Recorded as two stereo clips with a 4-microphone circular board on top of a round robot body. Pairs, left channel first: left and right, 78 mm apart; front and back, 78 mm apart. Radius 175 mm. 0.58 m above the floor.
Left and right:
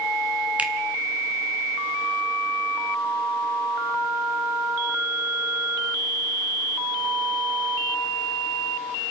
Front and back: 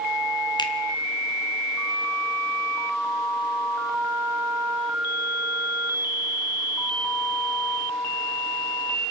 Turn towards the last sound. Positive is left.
turn(degrees=-15)